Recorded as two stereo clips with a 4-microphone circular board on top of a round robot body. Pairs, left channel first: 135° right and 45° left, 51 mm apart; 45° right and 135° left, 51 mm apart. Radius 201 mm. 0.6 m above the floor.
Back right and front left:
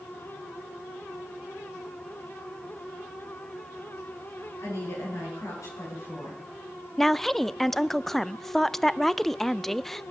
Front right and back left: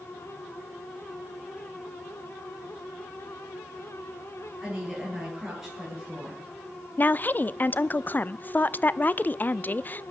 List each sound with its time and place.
4.6 s a woman speaking: 140° right, 10 m
7.0 s a woman speaking: 55° right, 0.6 m